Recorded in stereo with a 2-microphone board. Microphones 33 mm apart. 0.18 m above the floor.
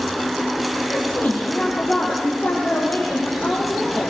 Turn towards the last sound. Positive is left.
turn(degrees=65)  # may be behind; listen again after turning